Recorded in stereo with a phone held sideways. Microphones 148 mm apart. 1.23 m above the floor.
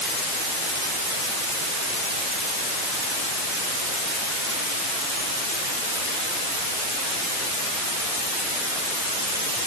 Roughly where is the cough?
I don't hear a cough.